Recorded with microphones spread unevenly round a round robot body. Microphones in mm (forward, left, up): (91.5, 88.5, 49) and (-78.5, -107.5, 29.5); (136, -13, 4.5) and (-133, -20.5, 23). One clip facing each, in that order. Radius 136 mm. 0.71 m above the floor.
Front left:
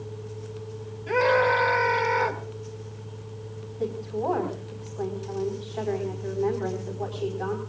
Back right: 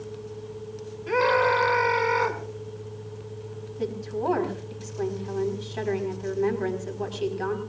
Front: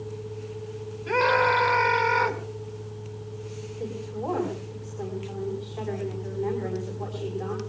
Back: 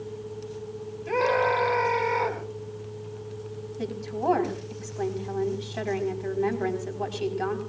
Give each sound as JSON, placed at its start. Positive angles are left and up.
{"t": 1.1, "sound": "a scream", "azimuth_deg": -60, "distance_m": 6.5}
{"t": 3.8, "sound": "a woman speaking", "azimuth_deg": 180, "distance_m": 5.0}